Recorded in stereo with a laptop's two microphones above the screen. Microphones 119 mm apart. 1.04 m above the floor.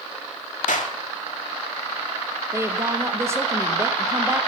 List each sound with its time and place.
0.7 s a clap: 85° left, 1.8 m
2.5 s a woman speaking: 20° right (ahead or behind), 1.2 m